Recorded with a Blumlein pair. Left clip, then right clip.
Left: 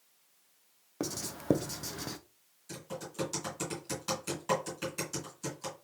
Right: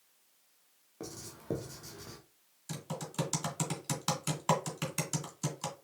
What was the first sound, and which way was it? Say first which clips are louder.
Writing: left 8 dB; 30° left.